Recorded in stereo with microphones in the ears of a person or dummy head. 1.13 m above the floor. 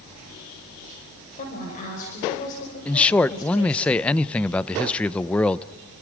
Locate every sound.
1.4 s a woman speaking: 45° left (ahead or behind), 5.5 m
2.9 s a man speaking: 5° left (ahead or behind), 0.5 m